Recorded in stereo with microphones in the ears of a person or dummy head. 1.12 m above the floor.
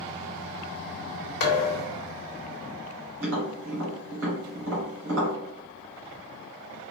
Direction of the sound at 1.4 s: 45° left (ahead or behind).